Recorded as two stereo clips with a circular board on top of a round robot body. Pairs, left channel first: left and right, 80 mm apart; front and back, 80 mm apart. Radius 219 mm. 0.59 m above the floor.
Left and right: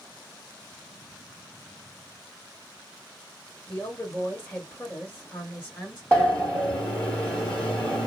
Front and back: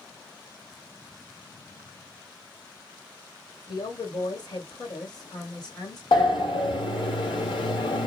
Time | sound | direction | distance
3.7 | a woman speaking | 15° left | 1.7 m
6.1 | a sliding door | 15° left | 1.2 m